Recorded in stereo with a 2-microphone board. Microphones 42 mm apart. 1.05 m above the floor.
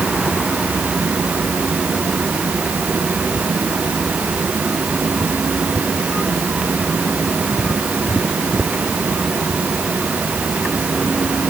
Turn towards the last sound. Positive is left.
No sound to turn to.